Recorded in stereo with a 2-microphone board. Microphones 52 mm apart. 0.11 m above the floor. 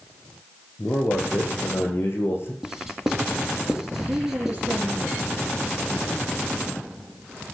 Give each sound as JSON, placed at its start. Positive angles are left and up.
{"t": 0.8, "sound": "a man speaking", "side_deg": 50, "distance_m": 5.0}
{"t": 2.6, "sound": "writing", "side_deg": -5, "distance_m": 1.8}
{"t": 4.0, "sound": "a woman speaking", "side_deg": -40, "distance_m": 3.5}